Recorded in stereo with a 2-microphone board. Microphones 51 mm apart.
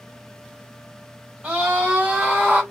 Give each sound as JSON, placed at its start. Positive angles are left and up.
{"t": 1.4, "sound": "a scream", "side_deg": -25, "distance_m": 2.5}